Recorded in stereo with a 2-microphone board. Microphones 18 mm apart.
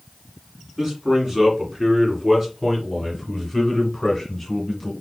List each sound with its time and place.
0.8 s a man speaking: 25° right (ahead or behind), 2.5 m; by 4.9 s 10° left (ahead or behind), 1.7 m